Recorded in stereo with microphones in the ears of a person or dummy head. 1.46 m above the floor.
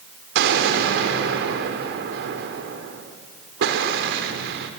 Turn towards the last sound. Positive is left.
turn(degrees=-65)  # may be behind; listen again after turning